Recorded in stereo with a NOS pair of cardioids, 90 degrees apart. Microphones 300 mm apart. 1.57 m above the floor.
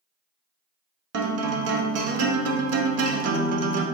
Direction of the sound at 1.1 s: 55° right.